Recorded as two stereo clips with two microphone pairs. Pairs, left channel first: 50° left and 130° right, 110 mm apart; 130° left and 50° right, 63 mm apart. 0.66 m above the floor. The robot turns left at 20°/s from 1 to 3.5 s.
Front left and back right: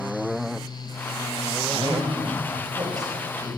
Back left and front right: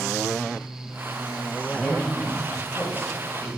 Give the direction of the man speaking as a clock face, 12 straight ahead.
5 o'clock.